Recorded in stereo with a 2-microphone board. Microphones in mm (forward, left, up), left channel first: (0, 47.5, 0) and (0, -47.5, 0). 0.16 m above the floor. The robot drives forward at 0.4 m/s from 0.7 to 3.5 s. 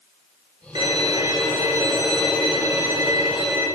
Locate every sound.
0.8 s a violin: 45° right (ahead or behind), 2.5 m; by 3.7 s 35° right (ahead or behind), 3.5 m